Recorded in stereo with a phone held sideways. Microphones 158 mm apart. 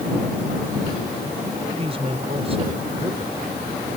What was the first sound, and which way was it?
A man speaking, 35° right (ahead or behind).